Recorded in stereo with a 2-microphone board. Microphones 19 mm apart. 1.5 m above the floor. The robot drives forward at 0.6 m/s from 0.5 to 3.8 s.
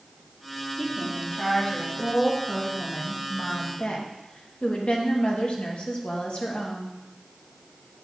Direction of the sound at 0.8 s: 35° left (ahead or behind).